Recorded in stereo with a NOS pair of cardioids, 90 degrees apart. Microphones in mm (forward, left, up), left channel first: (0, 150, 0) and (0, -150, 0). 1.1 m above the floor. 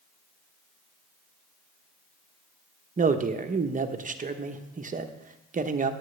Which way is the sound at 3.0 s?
25° right.